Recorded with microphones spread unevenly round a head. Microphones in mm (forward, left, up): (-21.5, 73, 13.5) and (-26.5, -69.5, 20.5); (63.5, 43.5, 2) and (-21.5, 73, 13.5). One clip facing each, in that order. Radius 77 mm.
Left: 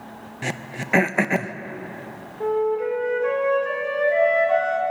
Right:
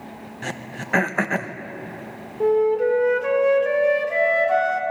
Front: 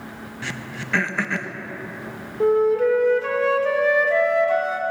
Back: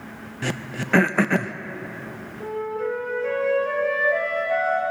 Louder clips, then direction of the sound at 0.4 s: Left 2 dB, back 5 dB; 160° left.